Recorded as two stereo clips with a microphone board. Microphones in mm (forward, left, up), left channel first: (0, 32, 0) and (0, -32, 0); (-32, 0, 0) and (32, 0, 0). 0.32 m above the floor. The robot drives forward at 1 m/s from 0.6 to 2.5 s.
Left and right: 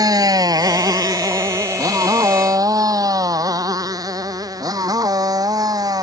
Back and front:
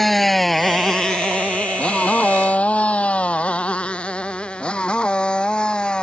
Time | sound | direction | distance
0.0 | a motorcycle | 95° right | ?